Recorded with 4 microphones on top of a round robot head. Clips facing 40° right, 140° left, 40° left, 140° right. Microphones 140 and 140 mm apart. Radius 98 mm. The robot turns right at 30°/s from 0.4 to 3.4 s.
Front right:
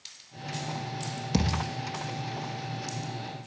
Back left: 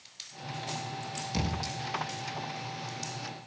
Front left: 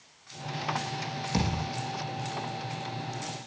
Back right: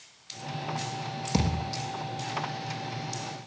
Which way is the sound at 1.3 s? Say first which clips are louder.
Front right 6 dB, back right 2 dB; 75° right.